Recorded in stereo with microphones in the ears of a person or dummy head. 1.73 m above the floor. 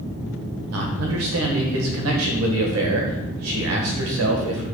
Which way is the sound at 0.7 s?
80° right.